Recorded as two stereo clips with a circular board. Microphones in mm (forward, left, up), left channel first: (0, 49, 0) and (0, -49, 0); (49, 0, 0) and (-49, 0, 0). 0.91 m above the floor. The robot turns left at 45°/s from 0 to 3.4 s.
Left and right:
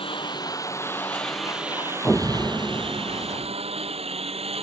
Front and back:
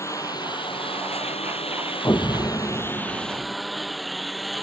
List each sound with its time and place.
0.0 s a lawn mower: 65° left; by 4.6 s 90° right
2.0 s an explosion: 25° left; by 3.5 s 35° right